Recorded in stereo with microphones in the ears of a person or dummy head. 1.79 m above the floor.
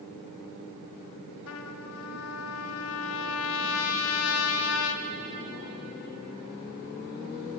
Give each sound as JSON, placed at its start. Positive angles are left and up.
{"t": 1.5, "sound": "a trumpet", "side_deg": 80, "distance_m": 0.8}